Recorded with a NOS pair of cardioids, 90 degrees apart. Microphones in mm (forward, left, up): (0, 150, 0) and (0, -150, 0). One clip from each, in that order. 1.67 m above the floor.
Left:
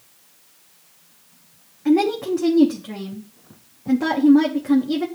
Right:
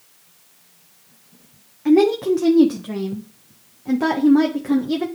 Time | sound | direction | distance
1.9 | a woman speaking | 10° right | 1.0 m